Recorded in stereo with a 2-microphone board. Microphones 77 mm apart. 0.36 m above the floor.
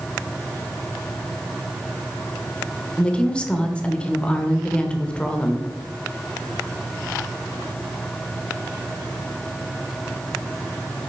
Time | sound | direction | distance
3.0 | a woman speaking | 10° left (ahead or behind) | 0.8 m